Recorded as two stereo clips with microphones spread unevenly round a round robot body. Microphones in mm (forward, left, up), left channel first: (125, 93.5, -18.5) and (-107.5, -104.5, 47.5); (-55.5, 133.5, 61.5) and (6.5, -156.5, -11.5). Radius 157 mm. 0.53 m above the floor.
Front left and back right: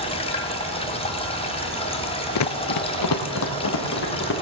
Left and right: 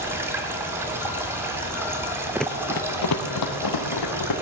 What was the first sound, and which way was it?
Running water, 10° right.